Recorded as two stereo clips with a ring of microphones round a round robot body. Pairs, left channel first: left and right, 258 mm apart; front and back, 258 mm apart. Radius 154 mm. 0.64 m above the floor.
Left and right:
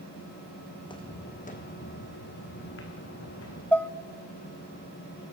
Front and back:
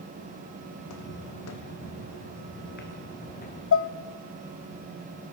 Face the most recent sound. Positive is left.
turn(degrees=5)